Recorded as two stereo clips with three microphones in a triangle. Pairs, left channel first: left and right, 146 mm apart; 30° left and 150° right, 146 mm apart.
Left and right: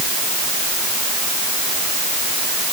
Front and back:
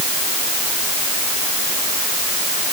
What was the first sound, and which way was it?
Only background noise.